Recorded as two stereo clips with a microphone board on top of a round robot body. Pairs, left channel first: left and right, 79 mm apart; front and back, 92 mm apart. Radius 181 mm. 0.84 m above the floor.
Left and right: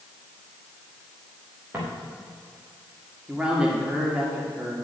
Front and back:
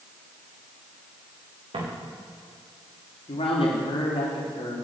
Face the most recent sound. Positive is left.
turn(degrees=-15)